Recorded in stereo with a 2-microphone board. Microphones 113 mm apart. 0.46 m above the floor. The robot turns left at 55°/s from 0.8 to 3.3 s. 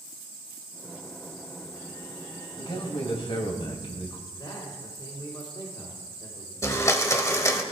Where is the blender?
30° left (ahead or behind), 1.1 m.